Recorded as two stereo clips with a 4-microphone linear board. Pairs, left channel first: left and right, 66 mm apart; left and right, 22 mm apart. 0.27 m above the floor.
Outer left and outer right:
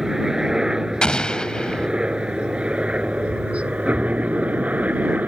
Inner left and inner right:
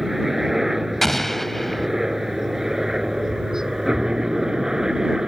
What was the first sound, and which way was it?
A helicopter, 10° right (ahead or behind).